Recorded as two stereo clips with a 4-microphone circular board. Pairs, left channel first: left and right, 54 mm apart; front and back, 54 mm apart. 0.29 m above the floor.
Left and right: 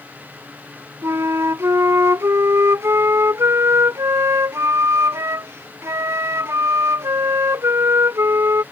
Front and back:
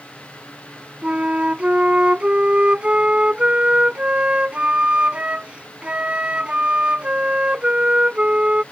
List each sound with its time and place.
1.0 s a flute: 115° right